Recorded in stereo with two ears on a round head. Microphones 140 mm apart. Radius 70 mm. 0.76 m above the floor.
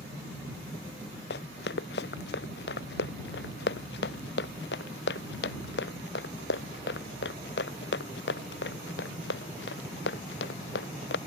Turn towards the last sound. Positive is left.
turn(degrees=80)